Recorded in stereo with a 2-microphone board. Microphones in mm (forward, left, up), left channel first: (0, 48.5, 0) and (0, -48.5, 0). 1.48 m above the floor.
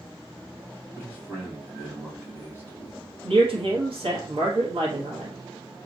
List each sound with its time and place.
1.0 s a man speaking: 25° right (ahead or behind), 2 m
3.2 s a man speaking: 65° right (ahead or behind), 1.4 m